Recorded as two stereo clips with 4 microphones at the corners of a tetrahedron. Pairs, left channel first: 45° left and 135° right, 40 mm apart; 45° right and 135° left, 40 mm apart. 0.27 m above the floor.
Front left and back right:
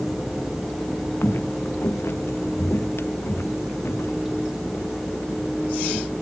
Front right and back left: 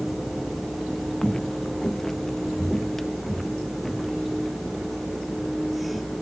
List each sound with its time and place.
1.2 s footsteps: 30° left; by 6.2 s 45° left